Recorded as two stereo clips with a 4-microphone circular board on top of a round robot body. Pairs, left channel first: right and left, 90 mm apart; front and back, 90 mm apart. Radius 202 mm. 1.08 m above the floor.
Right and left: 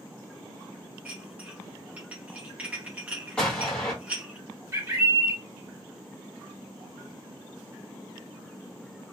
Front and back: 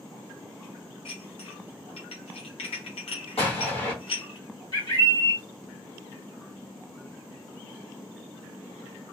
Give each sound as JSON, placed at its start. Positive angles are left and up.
{"t": 1.1, "sound": "dishes clattering", "azimuth_deg": 15, "distance_m": 0.6}
{"t": 3.4, "sound": "an explosion", "azimuth_deg": -10, "distance_m": 1.1}
{"t": 4.7, "sound": "a bird", "azimuth_deg": 35, "distance_m": 1.2}